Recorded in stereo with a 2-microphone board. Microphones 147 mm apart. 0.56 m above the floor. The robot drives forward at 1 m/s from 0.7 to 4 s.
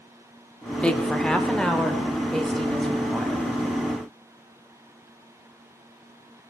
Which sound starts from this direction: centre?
A woman speaking, at 0.8 s.